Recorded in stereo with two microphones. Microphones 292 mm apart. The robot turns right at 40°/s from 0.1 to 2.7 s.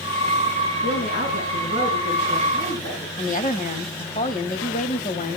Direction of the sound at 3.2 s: 25° left (ahead or behind).